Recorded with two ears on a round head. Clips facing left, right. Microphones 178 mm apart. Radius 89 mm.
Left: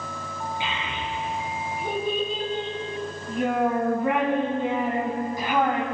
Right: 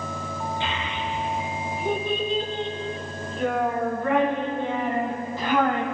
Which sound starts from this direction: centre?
A child speaking, at 0.6 s.